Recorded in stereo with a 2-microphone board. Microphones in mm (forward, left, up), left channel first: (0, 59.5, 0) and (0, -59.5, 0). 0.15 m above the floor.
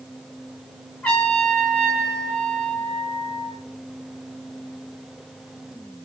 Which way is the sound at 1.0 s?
5° left (ahead or behind).